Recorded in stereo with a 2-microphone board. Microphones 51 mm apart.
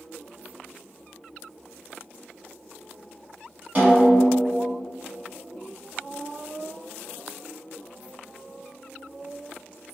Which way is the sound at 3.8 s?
35° right (ahead or behind).